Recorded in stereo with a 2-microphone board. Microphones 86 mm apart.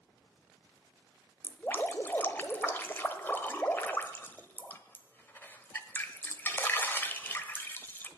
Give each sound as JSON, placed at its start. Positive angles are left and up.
{"t": 1.4, "sound": "dripping", "side_deg": 25, "distance_m": 1.1}